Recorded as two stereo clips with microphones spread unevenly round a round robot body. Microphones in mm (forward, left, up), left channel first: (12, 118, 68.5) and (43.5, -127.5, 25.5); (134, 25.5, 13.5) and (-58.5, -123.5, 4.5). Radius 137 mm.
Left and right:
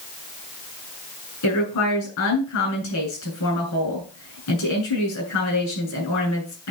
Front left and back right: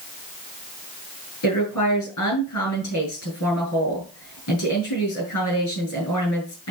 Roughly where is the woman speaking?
Left.